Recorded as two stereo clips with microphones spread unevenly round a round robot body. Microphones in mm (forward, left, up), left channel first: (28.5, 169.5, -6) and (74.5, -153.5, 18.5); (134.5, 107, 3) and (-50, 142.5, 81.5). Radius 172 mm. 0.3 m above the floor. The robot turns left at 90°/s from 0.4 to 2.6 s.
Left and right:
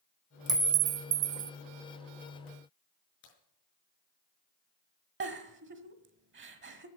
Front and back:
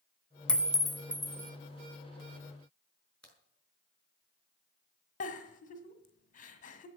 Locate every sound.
0.5 s a clink: 5° right, 0.5 m; by 1.5 s 100° right, 0.5 m
3.2 s a crack: 65° left, 5.5 m
5.2 s a giggle: 25° right, 1.5 m